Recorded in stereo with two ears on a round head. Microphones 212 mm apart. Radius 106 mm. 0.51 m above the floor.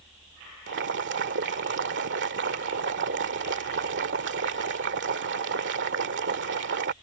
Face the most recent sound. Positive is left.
turn(degrees=-55)  # may be behind; listen again after turning